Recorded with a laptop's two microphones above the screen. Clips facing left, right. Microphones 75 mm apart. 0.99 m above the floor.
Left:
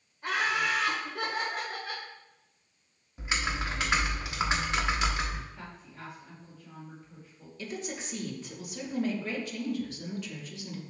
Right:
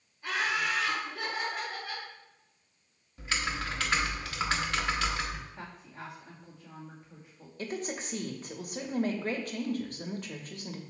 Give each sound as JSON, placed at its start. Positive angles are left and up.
{"t": 0.2, "sound": "laughter", "side_deg": 60, "distance_m": 1.9}
{"t": 3.2, "sound": "typing on a keyboard", "side_deg": 20, "distance_m": 0.8}
{"t": 5.5, "sound": "a woman speaking", "side_deg": -30, "distance_m": 1.9}
{"t": 7.6, "sound": "a woman speaking", "side_deg": -45, "distance_m": 0.9}